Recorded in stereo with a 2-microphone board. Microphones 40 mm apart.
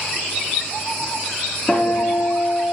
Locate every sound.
1.7 s a guitar: 5° left (ahead or behind), 7 m